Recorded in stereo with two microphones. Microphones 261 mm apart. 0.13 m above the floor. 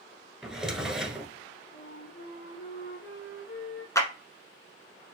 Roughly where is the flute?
Left.